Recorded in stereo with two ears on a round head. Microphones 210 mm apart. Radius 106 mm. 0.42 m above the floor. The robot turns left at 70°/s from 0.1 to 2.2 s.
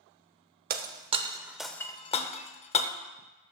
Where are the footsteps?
I don't hear footsteps.